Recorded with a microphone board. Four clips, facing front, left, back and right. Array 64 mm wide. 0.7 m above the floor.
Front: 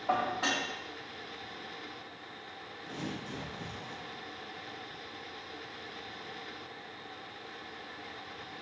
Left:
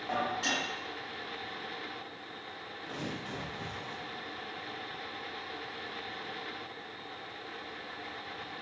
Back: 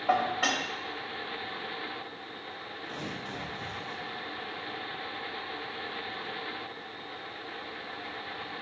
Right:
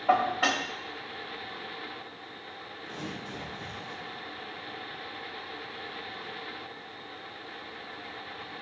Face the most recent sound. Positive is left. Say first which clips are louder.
# even, back 1 dB
turn(degrees=115)